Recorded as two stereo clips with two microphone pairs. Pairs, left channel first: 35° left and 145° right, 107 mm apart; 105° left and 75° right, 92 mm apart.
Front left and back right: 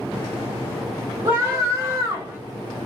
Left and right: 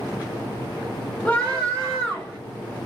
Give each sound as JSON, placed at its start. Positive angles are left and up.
{"t": 1.2, "sound": "a scream", "azimuth_deg": 170, "distance_m": 0.7}